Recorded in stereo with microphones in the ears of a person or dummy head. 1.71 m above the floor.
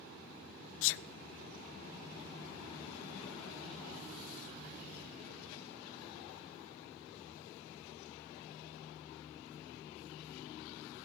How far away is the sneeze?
About 0.5 m.